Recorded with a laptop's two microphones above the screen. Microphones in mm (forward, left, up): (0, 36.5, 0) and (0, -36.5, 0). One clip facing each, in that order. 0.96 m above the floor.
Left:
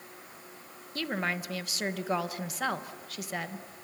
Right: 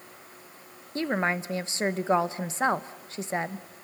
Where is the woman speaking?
30° right (ahead or behind), 1.0 m.